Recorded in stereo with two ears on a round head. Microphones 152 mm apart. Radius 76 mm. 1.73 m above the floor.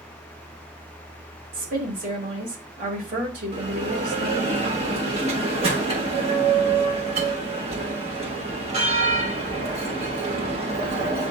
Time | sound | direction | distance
1.5 | a woman speaking | 50° right (ahead or behind) | 2.5 m
3.5 | a bell | 40° right (ahead or behind) | 1.2 m